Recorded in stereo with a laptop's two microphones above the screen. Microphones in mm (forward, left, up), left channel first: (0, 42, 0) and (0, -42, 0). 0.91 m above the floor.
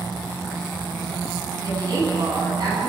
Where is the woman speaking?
50° right (ahead or behind), 10 m.